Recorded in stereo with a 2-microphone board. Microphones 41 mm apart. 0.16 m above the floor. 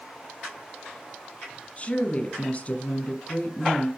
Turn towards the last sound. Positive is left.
turn(degrees=30)  # may be behind; listen again after turning